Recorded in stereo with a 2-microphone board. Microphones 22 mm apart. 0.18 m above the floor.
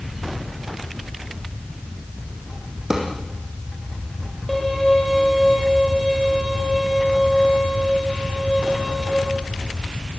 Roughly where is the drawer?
Right.